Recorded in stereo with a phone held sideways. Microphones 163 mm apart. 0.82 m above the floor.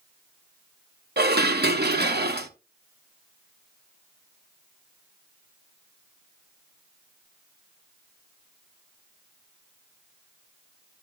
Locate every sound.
1.2 s dishes clattering: 70° right (ahead or behind), 0.9 m